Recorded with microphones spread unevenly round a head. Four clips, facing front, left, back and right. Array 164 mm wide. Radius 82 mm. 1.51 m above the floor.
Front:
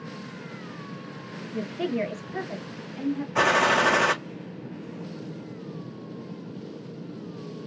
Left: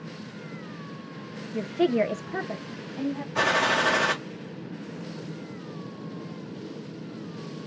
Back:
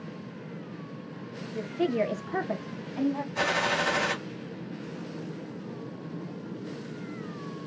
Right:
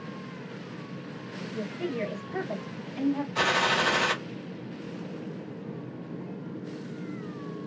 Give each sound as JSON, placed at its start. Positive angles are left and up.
{"t": 1.5, "sound": "a woman speaking", "azimuth_deg": 70, "distance_m": 0.9}
{"t": 3.4, "sound": "a gunshot", "azimuth_deg": 20, "distance_m": 0.9}